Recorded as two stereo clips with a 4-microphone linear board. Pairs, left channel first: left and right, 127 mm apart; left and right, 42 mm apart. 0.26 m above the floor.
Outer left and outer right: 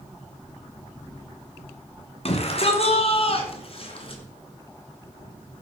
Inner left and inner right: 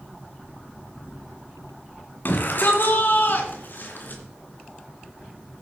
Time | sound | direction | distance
2.2 | a shout | 50° left (ahead or behind) | 2.5 m